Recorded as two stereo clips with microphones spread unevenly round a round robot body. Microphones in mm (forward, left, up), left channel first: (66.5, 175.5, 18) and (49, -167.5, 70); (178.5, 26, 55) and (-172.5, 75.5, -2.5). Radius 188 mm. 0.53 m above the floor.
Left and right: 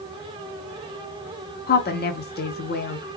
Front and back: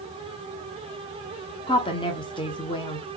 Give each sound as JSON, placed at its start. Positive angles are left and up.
{"t": 1.7, "sound": "a woman speaking", "azimuth_deg": 70, "distance_m": 0.8}